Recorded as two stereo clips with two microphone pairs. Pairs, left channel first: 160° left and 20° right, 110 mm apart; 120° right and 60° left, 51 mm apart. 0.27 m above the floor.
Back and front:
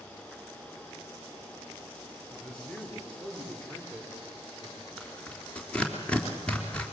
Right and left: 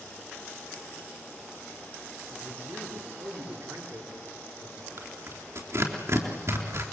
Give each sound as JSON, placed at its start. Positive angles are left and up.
{"t": 2.3, "sound": "a man speaking", "azimuth_deg": 80, "distance_m": 5.0}
{"t": 5.0, "sound": "tearing paper", "azimuth_deg": 85, "distance_m": 3.5}